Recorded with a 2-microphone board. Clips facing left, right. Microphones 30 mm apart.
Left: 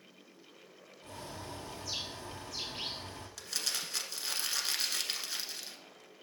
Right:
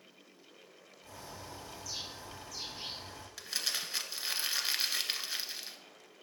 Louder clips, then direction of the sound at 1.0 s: Left 3 dB; 60° left (ahead or behind).